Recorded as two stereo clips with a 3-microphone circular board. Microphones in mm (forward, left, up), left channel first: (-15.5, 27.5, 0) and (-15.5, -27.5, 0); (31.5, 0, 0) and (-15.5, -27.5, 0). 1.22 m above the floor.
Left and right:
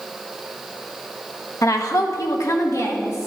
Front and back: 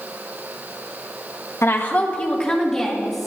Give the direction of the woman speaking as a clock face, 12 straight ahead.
10 o'clock.